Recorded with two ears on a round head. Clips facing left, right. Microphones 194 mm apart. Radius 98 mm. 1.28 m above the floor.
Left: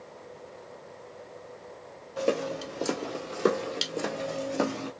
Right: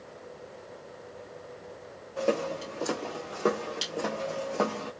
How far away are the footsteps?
About 1.6 m.